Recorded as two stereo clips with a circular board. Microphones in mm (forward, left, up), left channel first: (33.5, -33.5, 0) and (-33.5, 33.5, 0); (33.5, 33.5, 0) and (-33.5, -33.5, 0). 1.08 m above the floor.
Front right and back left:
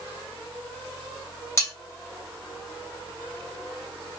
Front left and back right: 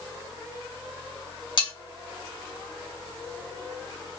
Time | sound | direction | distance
1.6 | cutlery clinking | 15° left | 1.9 m